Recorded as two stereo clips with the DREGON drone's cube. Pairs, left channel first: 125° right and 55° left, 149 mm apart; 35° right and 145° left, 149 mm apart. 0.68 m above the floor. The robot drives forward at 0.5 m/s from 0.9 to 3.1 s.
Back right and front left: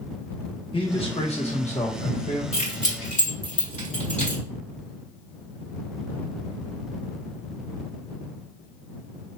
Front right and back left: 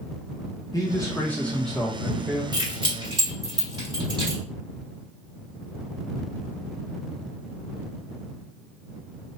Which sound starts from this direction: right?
A man speaking, at 0.7 s.